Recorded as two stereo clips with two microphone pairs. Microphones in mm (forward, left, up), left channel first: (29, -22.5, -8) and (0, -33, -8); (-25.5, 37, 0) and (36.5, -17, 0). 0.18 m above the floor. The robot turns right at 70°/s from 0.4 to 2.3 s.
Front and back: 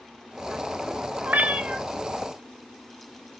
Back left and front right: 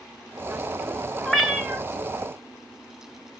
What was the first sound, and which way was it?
A cat meowing, 140° right.